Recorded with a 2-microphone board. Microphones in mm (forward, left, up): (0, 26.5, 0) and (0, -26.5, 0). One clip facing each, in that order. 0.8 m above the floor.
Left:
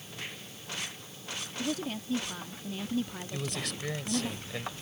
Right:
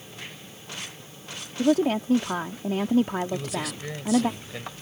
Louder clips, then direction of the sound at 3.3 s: Right 6 dB; centre (ahead or behind).